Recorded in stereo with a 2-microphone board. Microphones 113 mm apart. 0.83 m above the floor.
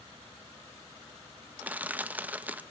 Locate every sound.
1.6 s crushing: 15° right (ahead or behind), 0.5 m